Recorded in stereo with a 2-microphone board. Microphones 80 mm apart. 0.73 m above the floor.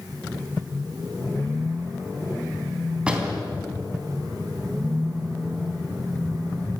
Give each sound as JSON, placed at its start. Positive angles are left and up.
{"t": 3.1, "sound": "a door slam", "side_deg": -10, "distance_m": 3.5}